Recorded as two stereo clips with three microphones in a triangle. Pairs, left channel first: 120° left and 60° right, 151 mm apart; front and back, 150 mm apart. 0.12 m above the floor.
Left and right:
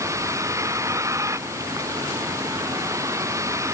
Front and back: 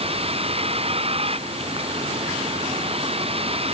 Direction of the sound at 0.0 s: 130° right.